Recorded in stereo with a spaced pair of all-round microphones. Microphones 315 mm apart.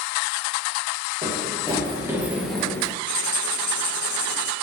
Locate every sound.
1.2 s running footsteps: 25° right (ahead or behind), 2.5 m; by 2.9 s 10° left (ahead or behind), 2 m
3.1 s writing: 70° left (ahead or behind), 0.8 m